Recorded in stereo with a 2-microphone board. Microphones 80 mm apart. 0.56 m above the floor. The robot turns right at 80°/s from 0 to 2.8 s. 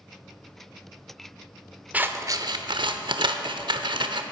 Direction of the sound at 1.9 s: 15° right (ahead or behind).